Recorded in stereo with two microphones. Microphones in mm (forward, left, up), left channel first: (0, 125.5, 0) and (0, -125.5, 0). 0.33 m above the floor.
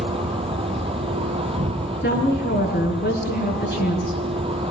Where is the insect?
20° right (ahead or behind), 2.5 m.